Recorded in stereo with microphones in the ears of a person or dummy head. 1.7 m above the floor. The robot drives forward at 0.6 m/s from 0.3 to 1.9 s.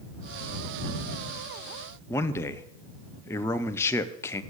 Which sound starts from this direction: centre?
A man speaking, at 2.1 s.